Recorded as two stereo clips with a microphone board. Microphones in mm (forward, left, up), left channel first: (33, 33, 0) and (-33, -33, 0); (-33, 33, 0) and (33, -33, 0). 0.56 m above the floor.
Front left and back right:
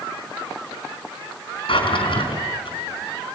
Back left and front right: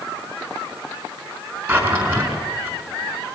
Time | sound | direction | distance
1.7 | a drawer | 15° left | 4.5 m